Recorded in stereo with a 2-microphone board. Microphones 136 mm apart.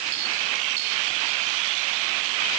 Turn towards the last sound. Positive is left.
No sound to turn to.